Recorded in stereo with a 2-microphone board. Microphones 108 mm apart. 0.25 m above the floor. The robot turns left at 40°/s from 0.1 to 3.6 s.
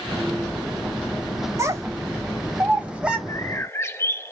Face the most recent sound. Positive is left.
turn(degrees=25)  # may be behind; listen again after turning